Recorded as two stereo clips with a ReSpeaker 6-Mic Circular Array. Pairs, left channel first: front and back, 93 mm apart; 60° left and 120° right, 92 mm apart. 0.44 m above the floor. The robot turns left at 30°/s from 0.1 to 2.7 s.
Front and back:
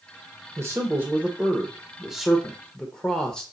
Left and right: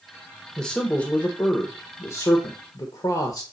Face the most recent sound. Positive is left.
turn(degrees=75)